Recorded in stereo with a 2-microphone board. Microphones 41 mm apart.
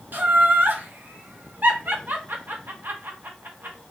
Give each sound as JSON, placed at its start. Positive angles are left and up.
{"t": 0.1, "sound": "laughter", "side_deg": -50, "distance_m": 1.0}